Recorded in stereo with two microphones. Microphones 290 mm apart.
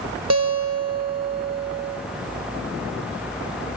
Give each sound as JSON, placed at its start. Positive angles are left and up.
{"t": 0.3, "sound": "a guitar", "side_deg": -65, "distance_m": 1.7}